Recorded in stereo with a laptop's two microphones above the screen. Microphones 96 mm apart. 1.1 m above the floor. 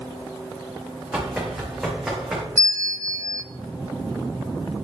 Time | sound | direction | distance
1.1 | running footsteps | 10° right (ahead or behind) | 4.5 m
2.6 | a bell | 30° right (ahead or behind) | 0.8 m